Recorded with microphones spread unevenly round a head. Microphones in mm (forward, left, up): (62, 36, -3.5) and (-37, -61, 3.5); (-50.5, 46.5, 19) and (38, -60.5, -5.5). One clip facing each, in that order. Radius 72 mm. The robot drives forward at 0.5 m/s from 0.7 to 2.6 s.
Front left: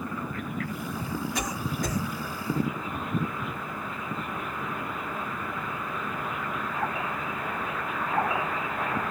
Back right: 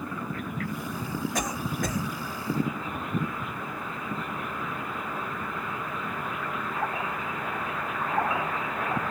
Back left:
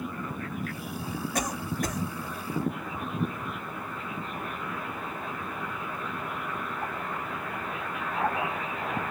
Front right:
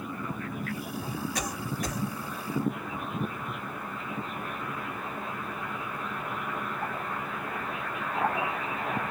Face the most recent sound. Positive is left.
turn(degrees=175)